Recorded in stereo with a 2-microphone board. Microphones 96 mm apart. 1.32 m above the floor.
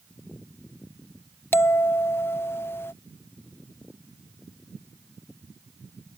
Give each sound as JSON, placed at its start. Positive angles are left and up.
{"t": 1.5, "sound": "a bell", "side_deg": 25}